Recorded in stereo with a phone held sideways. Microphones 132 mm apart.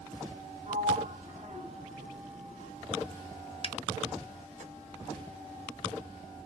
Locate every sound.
0.7 s a sliding door: 60° right (ahead or behind), 1.8 m
3.6 s a finger snap: 40° left (ahead or behind), 0.7 m